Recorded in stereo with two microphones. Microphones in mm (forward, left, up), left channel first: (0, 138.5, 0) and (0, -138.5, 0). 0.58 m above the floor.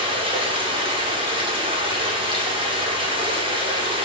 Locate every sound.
0.0 s running water: 20° right (ahead or behind), 0.8 m